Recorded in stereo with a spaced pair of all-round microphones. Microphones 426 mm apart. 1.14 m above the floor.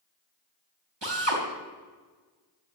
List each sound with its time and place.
1.0 s a drill: 75° right (ahead or behind), 3.5 m